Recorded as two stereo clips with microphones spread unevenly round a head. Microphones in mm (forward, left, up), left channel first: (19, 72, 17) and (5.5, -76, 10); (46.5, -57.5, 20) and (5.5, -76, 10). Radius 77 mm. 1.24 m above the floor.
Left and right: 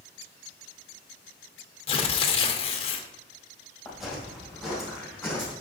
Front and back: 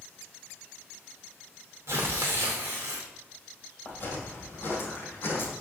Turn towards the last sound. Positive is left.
turn(degrees=-5)